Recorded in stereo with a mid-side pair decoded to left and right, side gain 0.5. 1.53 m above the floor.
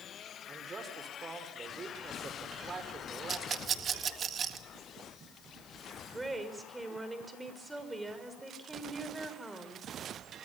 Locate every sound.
0.5 s a man speaking: 35° right, 5 m
3.3 s a rattle: 50° right, 1.7 m
6.0 s a woman speaking: 15° right, 6 m